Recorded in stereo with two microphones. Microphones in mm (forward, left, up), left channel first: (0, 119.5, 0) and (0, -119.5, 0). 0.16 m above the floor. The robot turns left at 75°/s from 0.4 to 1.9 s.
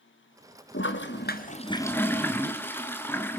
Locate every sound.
0.7 s a toilet flushing: 100° left, 2.0 m; by 3.4 s 10° left, 2.0 m